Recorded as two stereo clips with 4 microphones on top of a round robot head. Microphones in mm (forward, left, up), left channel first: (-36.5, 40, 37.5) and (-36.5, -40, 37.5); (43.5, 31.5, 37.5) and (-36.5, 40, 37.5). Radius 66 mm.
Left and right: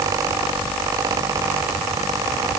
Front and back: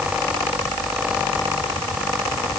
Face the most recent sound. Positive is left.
No sound to turn to.